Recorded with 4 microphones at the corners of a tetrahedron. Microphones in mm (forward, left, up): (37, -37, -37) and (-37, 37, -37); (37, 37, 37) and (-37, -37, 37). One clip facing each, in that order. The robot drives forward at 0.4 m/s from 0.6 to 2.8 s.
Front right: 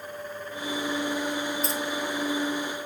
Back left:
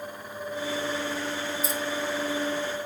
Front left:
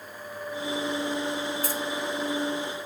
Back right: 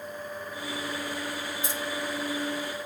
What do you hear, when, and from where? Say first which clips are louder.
1.6 s keys jangling: front right 1 dB, front left 3 dB; 150° right, 0.8 m; by 1.8 s 155° right, 0.8 m